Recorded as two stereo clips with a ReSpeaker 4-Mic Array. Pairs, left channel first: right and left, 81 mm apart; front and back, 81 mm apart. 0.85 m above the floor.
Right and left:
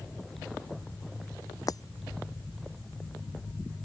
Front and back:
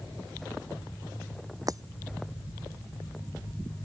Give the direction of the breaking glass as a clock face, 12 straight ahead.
4 o'clock.